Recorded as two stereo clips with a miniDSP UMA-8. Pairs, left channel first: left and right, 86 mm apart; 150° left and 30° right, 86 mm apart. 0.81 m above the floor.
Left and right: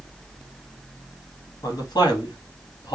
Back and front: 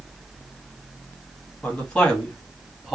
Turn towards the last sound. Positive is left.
turn(degrees=55)